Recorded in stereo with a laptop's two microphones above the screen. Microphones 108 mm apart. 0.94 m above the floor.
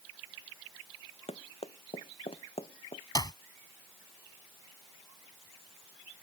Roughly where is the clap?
Left.